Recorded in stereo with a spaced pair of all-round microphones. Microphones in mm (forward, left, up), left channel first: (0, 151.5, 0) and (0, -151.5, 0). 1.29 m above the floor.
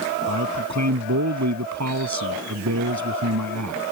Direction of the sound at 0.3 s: 60° right (ahead or behind).